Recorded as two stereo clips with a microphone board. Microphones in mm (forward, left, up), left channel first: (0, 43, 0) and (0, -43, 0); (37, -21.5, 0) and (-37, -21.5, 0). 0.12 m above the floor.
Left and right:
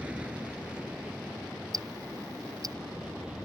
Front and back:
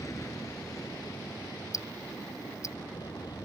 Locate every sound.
0.0 s an aircraft: 20° right; by 3.5 s 10° right
1.7 s ticking: 45° right